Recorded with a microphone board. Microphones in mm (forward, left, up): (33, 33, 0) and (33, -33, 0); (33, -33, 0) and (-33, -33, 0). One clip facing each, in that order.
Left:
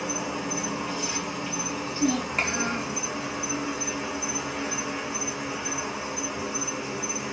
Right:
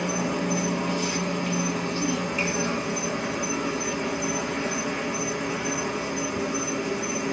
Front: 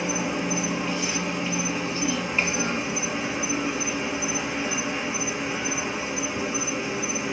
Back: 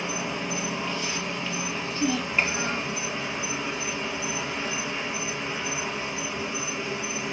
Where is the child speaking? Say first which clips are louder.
Left 5 dB, back 3 dB; 115° left, 1.3 m.